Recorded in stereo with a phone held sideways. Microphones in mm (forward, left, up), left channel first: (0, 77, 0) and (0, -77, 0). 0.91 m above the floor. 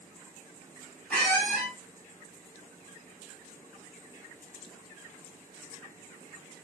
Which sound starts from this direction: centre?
A squeak, at 1.1 s.